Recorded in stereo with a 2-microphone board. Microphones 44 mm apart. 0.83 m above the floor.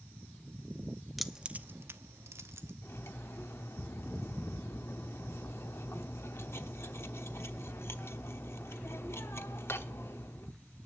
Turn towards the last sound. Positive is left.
turn(degrees=65)  # may be behind; listen again after turning